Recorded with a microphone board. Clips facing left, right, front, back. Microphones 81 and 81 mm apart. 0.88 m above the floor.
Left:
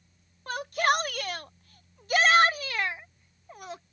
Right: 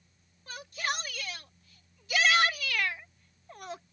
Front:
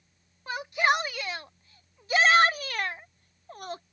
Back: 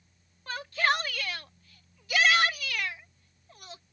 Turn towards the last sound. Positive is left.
turn(degrees=-5)